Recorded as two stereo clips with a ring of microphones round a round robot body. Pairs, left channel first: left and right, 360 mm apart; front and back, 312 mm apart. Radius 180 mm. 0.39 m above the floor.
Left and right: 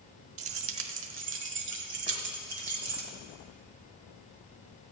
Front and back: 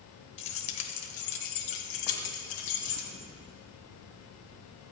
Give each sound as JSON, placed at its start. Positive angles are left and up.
{"t": 0.4, "sound": "keys jangling", "azimuth_deg": -50, "distance_m": 0.8}